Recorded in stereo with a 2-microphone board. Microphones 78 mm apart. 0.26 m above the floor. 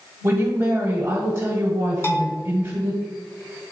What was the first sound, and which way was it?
A woman speaking, 30° right (ahead or behind).